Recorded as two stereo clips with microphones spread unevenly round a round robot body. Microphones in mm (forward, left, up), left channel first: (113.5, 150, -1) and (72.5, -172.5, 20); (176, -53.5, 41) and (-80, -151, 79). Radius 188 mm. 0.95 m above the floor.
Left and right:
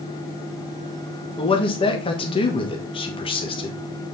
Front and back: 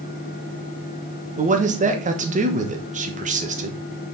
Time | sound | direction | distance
1.4 | a man speaking | 140° left | 1.1 m